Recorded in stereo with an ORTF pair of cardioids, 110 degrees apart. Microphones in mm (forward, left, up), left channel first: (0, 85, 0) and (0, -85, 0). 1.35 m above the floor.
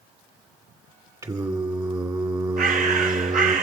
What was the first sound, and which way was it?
Singing, 20° right.